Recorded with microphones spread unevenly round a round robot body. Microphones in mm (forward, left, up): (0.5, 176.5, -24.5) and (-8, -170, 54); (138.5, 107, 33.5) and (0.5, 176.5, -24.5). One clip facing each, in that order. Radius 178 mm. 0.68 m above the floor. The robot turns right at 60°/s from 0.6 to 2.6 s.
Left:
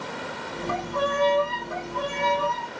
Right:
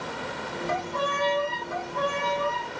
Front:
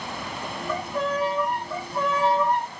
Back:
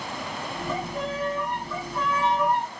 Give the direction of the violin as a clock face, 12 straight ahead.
2 o'clock.